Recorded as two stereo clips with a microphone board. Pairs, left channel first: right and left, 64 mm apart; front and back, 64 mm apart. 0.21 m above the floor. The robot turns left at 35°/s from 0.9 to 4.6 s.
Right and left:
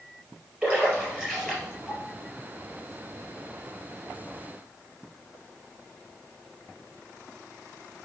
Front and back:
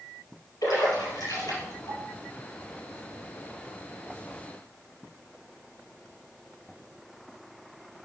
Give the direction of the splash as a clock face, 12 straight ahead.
11 o'clock.